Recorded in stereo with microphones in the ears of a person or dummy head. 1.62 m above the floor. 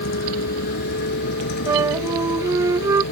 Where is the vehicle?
55° left (ahead or behind); by 3.1 s 60° left (ahead or behind).